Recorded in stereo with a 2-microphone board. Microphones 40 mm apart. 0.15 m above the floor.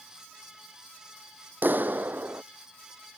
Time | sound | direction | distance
1.6 | a clap | 55° right (ahead or behind) | ?